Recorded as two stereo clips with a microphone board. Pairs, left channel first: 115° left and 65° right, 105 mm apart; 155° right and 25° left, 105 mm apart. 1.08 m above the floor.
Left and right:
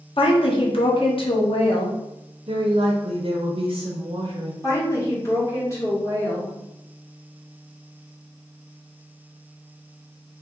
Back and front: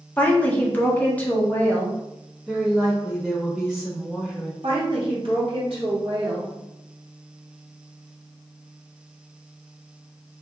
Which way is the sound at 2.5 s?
65° right.